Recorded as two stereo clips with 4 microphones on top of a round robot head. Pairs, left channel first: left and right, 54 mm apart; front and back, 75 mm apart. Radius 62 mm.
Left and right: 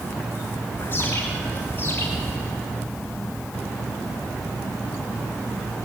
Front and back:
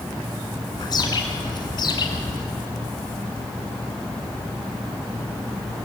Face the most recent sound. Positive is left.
turn(degrees=30)